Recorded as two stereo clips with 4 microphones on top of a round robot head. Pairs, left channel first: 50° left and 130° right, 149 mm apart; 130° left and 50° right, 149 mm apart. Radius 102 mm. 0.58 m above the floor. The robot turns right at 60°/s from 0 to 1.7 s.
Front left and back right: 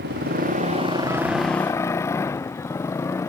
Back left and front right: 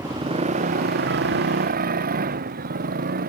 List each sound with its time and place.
0.0 s a motorcycle: 125° right; by 3.3 s 25° right